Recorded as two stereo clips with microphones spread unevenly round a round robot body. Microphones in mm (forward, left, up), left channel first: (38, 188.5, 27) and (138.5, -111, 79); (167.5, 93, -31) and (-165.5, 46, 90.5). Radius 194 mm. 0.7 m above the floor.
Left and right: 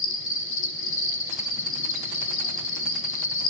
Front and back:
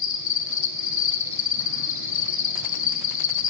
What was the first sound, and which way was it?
An insect, 55° left.